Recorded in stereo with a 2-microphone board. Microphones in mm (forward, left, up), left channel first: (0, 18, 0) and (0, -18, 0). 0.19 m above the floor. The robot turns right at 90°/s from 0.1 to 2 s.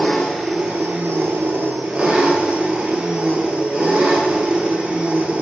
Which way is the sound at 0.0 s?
155° left.